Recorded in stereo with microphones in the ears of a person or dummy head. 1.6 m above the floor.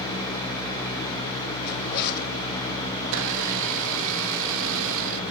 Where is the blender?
75° right (ahead or behind), 1.1 m.